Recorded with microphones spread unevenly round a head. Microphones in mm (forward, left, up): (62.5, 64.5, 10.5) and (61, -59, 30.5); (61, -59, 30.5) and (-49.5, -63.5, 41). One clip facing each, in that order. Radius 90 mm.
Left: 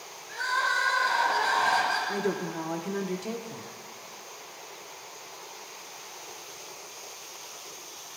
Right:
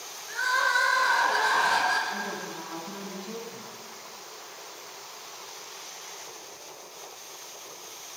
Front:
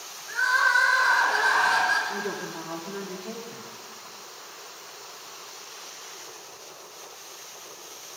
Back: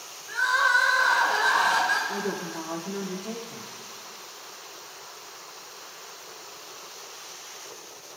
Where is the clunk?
I don't hear a clunk.